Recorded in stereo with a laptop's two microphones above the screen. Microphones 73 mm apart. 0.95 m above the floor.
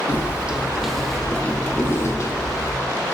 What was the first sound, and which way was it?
Footsteps, 25° right (ahead or behind).